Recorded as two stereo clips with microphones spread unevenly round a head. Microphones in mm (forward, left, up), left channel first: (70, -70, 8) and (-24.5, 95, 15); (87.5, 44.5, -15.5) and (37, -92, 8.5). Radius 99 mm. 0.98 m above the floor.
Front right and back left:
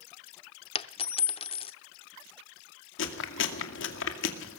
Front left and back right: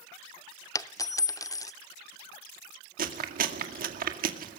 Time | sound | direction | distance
0.8 | a dropped coin | straight ahead | 0.9 m
3.0 | chewing | 85° right | 2 m